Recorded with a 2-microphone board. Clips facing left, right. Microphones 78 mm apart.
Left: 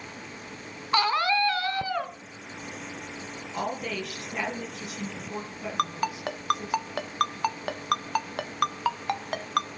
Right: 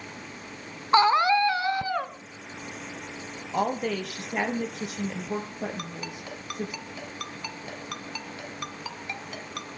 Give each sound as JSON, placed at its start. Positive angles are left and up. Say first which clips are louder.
{"t": 0.9, "sound": "a scream", "louder": "right 5 dB", "side_deg": -25, "distance_m": 1.6}
{"t": 3.5, "sound": "a woman speaking", "louder": "right 5 dB", "side_deg": -50, "distance_m": 5.0}
{"t": 5.8, "sound": "a ringtone", "louder": "left 9 dB", "side_deg": 65, "distance_m": 1.1}